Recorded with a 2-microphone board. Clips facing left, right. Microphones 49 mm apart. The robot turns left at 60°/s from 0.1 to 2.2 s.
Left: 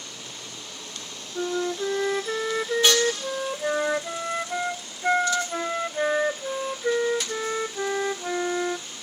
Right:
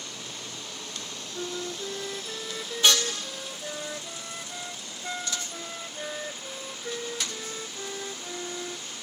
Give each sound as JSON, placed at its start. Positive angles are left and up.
{"t": 1.4, "sound": "a flute", "azimuth_deg": 135}